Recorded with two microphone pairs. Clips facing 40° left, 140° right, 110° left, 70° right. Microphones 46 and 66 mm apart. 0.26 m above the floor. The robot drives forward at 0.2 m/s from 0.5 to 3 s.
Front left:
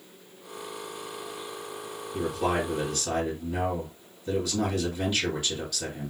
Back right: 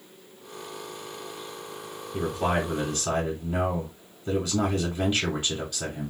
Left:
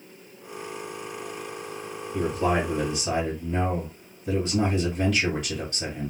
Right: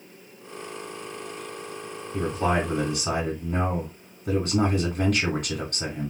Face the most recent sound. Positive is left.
turn(degrees=-95)